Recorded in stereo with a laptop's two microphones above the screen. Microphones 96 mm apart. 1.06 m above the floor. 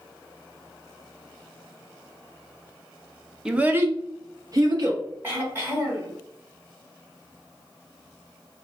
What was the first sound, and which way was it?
A child speaking, 5° right (ahead or behind).